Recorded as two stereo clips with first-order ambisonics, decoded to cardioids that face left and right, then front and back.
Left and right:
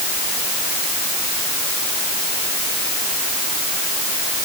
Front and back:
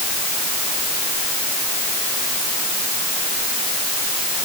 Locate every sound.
Only background noise.